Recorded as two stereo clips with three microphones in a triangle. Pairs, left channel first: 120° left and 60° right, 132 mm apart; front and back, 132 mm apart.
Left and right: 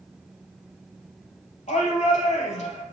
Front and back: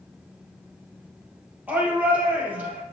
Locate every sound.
1.7 s a shout: 100° left, 4 m